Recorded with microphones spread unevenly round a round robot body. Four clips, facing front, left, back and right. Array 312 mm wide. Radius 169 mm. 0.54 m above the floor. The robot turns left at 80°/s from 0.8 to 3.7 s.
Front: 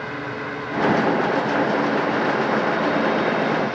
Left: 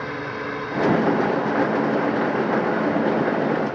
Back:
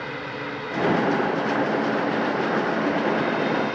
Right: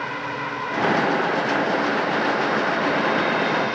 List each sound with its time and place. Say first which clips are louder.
0.0 s a drone: right 1 dB, front 3 dB; 120° left; by 3.8 s 115° right